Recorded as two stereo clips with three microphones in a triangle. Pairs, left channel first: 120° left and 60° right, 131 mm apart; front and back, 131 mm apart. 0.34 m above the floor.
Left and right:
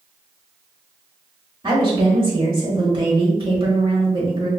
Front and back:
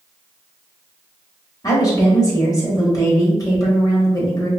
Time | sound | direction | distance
1.6 | a woman speaking | 45° right | 1.1 m